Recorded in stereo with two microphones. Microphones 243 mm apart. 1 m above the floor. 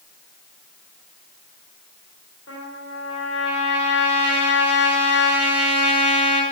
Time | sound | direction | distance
2.5 | a trumpet | 85° left | 2.5 m